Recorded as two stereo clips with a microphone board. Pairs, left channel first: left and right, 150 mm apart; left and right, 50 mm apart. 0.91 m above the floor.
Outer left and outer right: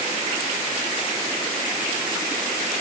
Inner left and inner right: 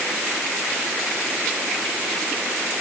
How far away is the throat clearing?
I don't hear throat clearing.